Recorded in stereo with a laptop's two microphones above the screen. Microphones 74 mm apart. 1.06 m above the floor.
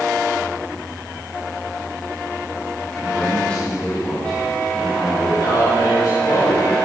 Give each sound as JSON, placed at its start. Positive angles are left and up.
{"t": 2.9, "sound": "a man speaking", "side_deg": 15, "distance_m": 6.0}
{"t": 5.4, "sound": "a man speaking", "side_deg": 65, "distance_m": 4.5}